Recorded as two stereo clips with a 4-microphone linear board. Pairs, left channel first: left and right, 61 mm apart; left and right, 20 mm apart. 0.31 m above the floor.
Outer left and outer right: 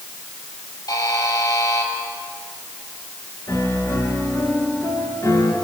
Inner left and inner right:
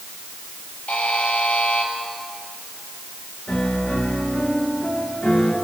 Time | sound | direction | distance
0.9 | a buzzer | 80° left | 5.5 m
3.5 | a piano | 60° left (ahead or behind) | 5.5 m